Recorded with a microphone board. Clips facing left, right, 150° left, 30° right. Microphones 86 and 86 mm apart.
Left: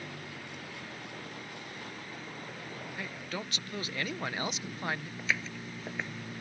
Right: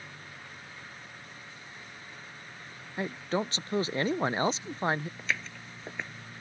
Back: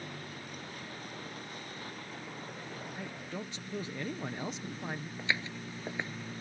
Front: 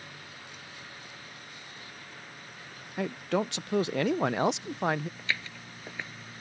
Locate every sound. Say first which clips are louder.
0.0 s a vehicle: left 4 dB, back 3 dB; 110° left; by 6.4 s 105° left
3.0 s a man speaking: right 10 dB, front 16 dB; 30° right
5.2 s footsteps: left 1 dB, back 1 dB; 175° left